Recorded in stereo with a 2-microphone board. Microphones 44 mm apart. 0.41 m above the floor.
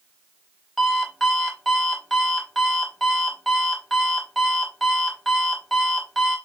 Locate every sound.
0.8 s an alarm clock: centre (ahead or behind), 1.0 m